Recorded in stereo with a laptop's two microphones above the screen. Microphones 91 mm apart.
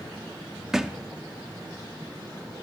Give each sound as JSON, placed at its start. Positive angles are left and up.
{"t": 0.7, "sound": "a thud", "side_deg": -5, "distance_m": 0.6}